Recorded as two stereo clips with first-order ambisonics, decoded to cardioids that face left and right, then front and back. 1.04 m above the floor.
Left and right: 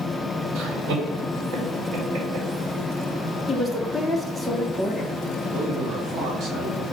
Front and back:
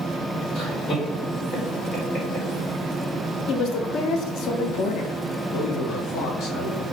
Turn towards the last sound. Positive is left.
turn(degrees=-40)